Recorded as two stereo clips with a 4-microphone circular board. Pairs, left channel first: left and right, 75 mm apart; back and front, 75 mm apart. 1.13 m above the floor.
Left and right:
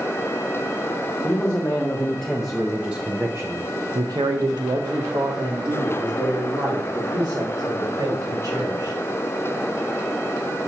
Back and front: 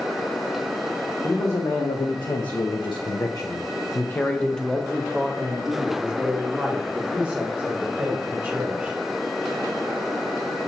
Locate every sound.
1.2 s a man speaking: 155° left, 1.3 m; by 8.9 s 70° right, 3 m